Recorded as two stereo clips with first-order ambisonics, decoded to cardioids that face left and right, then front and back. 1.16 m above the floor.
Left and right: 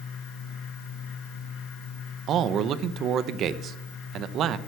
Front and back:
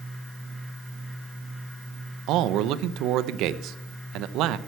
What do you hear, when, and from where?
2.3 s a man speaking: 145° right, 0.7 m